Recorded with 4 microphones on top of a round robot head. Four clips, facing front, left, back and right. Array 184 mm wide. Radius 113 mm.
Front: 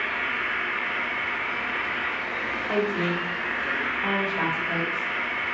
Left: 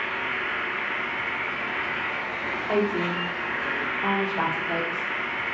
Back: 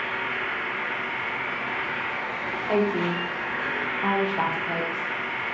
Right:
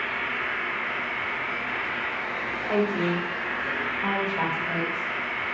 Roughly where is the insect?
Behind.